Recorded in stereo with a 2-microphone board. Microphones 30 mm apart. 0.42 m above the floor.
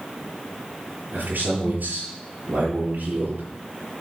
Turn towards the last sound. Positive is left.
turn(degrees=-65)  # may be behind; listen again after turning